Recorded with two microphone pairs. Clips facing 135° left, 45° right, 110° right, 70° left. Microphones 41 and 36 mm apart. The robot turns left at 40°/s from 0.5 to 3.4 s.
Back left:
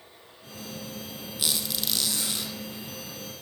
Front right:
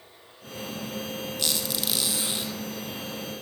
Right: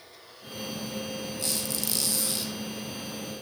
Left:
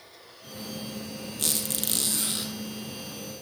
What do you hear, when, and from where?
1.4 s a squeak: 60° left, 2 m; by 2.5 s 15° left, 2 m